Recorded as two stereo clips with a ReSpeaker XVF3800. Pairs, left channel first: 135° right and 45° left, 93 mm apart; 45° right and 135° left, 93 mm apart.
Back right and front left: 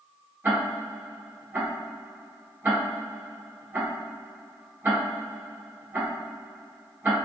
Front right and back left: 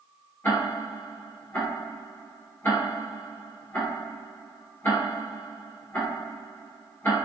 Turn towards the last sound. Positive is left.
turn(degrees=0)